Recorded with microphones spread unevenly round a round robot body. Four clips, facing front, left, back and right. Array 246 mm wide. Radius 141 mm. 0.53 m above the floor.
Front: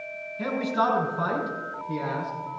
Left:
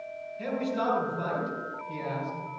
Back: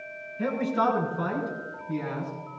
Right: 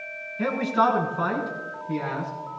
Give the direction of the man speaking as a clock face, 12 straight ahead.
2 o'clock.